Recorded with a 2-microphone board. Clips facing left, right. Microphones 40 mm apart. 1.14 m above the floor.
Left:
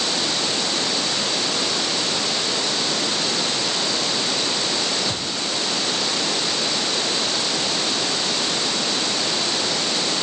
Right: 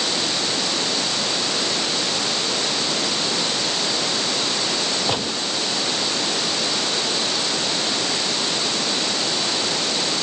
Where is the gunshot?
80° right.